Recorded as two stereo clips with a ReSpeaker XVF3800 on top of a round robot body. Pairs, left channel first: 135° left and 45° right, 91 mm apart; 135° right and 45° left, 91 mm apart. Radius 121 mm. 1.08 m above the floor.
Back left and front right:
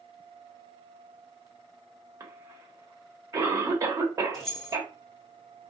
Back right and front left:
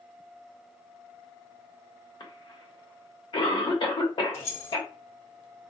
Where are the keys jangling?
140° right, 0.9 m.